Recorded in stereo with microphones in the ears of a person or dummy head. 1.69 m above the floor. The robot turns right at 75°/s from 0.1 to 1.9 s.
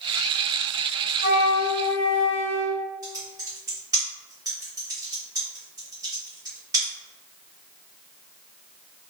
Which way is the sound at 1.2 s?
130° left.